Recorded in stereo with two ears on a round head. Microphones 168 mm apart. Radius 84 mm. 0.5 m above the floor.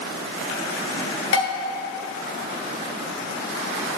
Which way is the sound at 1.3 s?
75° left (ahead or behind).